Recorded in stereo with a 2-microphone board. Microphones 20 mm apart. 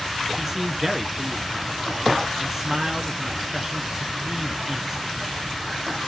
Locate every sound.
0.4 s a man speaking: 20° right (ahead or behind), 1.2 m